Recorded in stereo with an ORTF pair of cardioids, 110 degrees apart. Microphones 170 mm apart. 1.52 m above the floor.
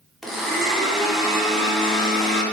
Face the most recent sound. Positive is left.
turn(degrees=0)